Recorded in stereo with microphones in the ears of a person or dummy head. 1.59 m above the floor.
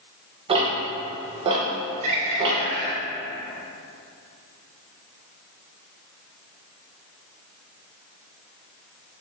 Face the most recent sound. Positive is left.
turn(degrees=-45)  # may be behind; listen again after turning